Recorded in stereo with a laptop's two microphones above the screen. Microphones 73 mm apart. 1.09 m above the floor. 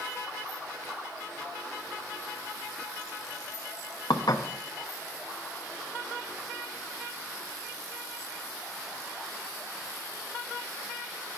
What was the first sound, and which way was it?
Dishes clattering, 70° left (ahead or behind).